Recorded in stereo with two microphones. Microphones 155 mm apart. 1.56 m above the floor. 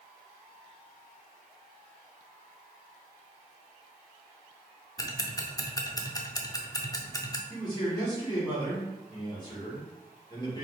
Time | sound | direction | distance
5.0 | ticking | 25° left (ahead or behind) | 0.5 m
7.5 | a man speaking | 25° left (ahead or behind) | 2 m